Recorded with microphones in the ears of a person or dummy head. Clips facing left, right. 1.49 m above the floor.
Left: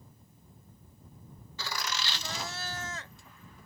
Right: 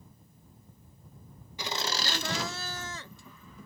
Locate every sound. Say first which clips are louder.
1.6 s laughter: right 4 dB; 15° right (ahead or behind); by 3.7 s 65° right (ahead or behind)